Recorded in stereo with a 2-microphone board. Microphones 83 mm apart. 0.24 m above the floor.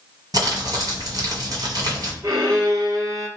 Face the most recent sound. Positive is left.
turn(degrees=-35)  # may be behind; listen again after turning